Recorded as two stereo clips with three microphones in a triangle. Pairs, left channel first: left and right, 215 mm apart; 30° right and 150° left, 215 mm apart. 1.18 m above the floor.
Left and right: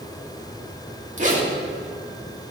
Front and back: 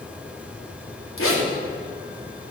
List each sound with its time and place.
1.2 s a zipper: 35° right, 3 m